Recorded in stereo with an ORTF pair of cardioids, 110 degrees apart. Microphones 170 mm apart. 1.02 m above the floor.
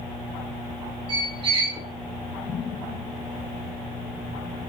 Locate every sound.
1.1 s a squeak: 30° right, 1.1 m